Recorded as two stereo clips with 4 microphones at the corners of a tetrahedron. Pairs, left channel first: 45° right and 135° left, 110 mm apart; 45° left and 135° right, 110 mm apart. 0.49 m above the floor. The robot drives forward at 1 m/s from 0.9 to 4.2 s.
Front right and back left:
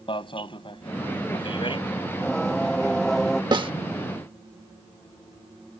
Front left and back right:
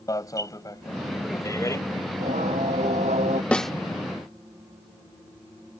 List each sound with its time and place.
0.1 s an alarm: 10° right; by 1.8 s 15° right
2.1 s singing: 130° right
3.5 s a snare drum: 120° left; by 3.7 s 135° left